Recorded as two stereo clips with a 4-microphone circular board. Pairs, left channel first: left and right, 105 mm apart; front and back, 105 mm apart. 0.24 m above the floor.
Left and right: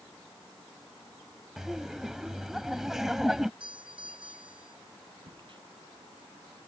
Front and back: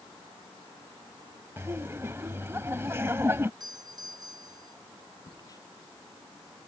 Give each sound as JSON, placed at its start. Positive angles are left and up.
{"t": 1.6, "sound": "laughter", "azimuth_deg": -170}
{"t": 3.6, "sound": "a doorbell", "azimuth_deg": -130}
{"t": 5.3, "sound": "a crack", "azimuth_deg": -50}